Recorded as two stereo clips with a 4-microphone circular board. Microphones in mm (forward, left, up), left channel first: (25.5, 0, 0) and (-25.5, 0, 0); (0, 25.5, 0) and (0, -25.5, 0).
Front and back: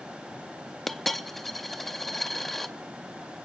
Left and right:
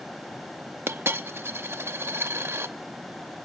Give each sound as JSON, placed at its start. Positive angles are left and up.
{"t": 0.9, "sound": "a dropped coin", "azimuth_deg": -85, "distance_m": 0.6}